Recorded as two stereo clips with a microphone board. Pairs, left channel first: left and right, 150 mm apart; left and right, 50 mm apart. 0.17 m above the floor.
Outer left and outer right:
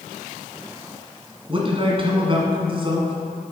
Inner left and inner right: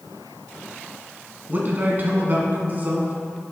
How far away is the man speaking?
About 1.8 m.